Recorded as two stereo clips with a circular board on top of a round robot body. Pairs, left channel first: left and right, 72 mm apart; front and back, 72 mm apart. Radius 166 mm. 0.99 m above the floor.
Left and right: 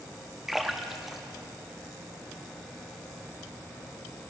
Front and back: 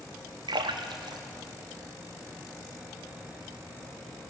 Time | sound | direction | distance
0.5 | a splash | 175° right | 0.6 m